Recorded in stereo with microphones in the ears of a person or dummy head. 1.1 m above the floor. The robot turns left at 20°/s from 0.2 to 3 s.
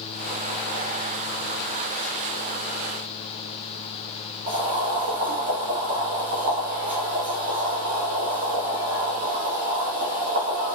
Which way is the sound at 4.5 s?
45° right (ahead or behind).